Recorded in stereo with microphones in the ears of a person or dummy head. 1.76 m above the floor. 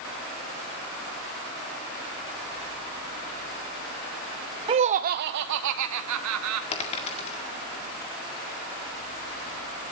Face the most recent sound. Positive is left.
turn(degrees=30)  # may be behind; listen again after turning